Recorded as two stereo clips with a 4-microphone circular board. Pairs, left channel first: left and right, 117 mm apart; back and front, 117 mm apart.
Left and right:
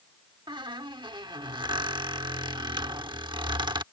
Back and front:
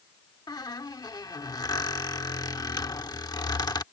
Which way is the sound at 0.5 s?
130° right.